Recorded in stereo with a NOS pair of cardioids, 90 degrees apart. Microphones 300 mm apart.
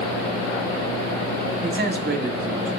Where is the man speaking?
35° right, 3.5 m; by 2.7 s 50° right, 2.5 m.